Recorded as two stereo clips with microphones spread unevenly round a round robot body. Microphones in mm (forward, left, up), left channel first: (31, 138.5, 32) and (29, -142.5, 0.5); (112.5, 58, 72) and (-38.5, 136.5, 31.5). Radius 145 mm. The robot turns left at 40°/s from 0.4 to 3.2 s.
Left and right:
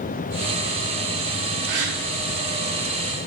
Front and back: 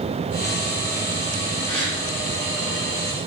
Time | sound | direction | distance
1.7 | a gasp | 90° right | 4 m